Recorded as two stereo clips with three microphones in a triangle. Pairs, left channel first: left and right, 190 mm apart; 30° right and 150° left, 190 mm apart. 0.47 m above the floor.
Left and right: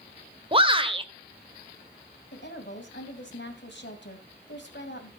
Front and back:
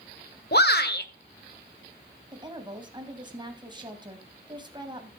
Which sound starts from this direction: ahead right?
A shout, at 0.5 s.